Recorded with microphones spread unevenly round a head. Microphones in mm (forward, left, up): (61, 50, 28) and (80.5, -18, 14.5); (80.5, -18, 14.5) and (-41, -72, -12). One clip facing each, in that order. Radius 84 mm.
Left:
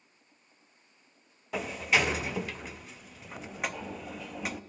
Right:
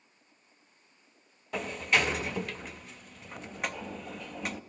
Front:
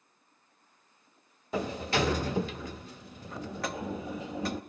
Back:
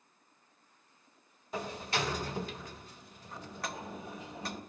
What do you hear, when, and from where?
1.5 s a sliding door: 20° left, 0.8 m